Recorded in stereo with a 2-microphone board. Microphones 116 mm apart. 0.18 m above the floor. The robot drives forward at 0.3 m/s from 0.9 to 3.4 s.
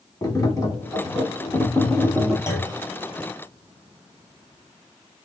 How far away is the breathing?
I don't hear breathing.